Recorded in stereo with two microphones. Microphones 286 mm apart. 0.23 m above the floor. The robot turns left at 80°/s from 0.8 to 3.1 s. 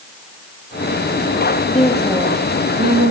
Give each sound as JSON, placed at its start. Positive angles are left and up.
{"t": 1.7, "sound": "a woman speaking", "azimuth_deg": 30, "distance_m": 7.0}